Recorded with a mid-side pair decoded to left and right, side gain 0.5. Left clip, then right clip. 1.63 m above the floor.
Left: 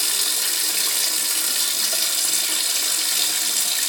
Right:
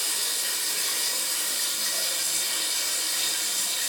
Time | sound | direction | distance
0.0 | running water | 65° left | 1.6 m